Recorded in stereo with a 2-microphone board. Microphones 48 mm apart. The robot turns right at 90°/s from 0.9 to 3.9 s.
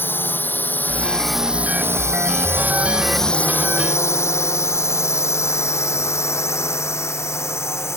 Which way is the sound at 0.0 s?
50° left (ahead or behind).